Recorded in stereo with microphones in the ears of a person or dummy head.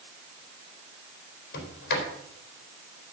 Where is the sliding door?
60° left (ahead or behind), 4 m.